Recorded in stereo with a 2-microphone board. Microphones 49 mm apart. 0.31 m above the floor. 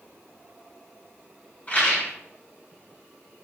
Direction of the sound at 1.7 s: 35° left (ahead or behind).